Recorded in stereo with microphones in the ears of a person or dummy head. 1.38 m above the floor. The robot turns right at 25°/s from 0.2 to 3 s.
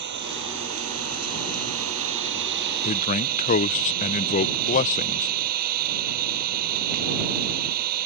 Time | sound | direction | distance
0.0 | an engine running | 125° right | ?
2.8 | a man speaking | 40° left (ahead or behind) | ?